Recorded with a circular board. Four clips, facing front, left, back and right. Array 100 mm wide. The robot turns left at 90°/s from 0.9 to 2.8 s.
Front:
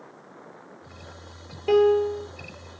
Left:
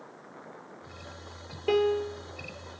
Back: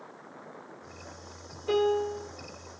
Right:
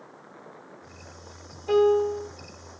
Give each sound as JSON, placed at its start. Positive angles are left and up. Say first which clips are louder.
{"t": 1.7, "sound": "a piano", "louder": "right 6 dB, front 7 dB", "azimuth_deg": 50, "distance_m": 0.8}